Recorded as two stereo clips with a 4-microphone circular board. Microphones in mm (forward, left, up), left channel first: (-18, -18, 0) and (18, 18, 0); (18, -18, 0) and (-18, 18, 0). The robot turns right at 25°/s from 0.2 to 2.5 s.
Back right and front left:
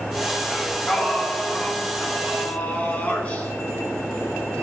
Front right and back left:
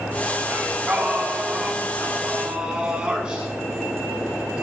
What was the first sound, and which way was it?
Singing, 140° left.